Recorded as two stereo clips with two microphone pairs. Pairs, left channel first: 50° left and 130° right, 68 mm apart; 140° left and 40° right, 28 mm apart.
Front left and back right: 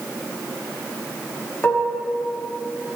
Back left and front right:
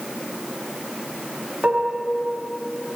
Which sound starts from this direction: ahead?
Dishes clattering, at 1.6 s.